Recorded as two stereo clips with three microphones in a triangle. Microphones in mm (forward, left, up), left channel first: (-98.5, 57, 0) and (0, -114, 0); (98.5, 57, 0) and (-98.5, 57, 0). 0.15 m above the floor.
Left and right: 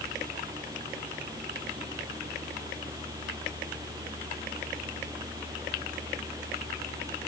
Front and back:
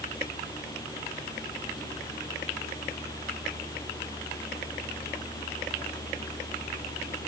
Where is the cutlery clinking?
I don't hear cutlery clinking.